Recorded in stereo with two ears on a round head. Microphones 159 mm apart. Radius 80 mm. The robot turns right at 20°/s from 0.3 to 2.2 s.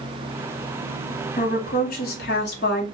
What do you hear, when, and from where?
1.4 s a woman speaking: 45° left (ahead or behind), 1.1 m; by 2.9 s 60° left (ahead or behind), 1.1 m